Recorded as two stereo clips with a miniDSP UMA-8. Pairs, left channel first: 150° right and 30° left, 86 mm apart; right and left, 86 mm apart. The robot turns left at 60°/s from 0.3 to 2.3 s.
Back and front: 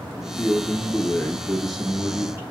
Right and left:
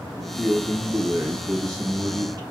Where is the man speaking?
165° right, 1.7 m; by 2.4 s 80° left, 1.7 m.